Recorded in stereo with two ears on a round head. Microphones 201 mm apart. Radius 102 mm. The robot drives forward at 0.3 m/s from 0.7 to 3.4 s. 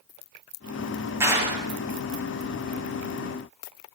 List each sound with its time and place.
1.2 s a clap: 15° right (ahead or behind), 7 m